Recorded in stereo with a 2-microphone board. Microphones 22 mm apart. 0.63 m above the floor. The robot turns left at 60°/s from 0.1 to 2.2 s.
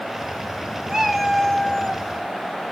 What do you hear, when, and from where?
0.9 s a cat meowing: 155° right, 2.5 m; by 2.0 s 135° left, 2.5 m